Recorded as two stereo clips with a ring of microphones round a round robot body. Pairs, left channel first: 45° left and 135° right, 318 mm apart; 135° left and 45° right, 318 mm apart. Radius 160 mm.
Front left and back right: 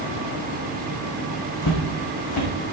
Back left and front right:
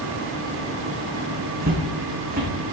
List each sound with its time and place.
1.6 s footsteps: 15° left, 2.5 m